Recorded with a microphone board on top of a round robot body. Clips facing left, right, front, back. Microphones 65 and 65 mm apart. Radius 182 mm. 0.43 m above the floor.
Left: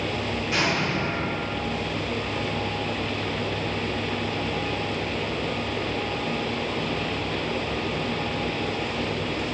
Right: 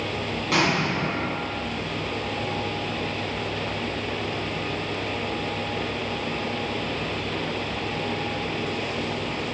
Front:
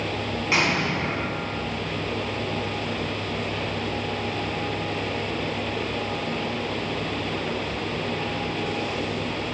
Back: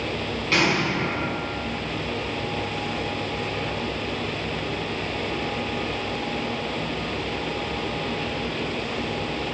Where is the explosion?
75° right, 4 m.